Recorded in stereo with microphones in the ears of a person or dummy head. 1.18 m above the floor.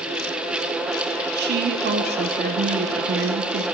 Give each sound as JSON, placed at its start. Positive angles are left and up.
{"t": 1.4, "sound": "a woman speaking", "side_deg": -45, "distance_m": 0.7}